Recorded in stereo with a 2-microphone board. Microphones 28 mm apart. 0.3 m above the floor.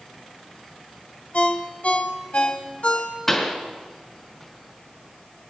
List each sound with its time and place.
1.3 s a ringtone: 55° left (ahead or behind), 1.2 m
3.3 s a pop: 15° left (ahead or behind), 2 m